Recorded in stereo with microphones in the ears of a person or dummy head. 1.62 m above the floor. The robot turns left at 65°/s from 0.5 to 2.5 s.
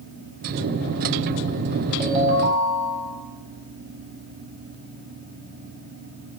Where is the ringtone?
25° right, 2 m; by 3.1 s 55° right, 2 m.